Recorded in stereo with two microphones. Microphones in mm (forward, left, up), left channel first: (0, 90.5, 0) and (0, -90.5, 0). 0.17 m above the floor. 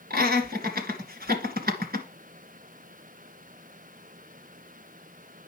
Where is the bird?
No bird in this recording.